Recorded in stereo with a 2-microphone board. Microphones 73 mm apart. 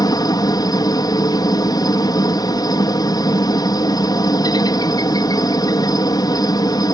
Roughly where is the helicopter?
Left.